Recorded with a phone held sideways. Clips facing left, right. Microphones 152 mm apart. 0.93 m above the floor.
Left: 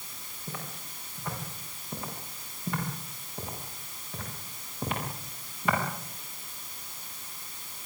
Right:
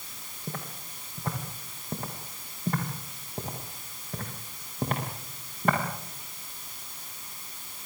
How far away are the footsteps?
About 8 m.